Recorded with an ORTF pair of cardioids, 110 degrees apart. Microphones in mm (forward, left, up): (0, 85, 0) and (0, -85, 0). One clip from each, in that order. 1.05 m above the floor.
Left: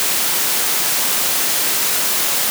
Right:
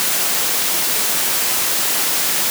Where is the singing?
No singing in this recording.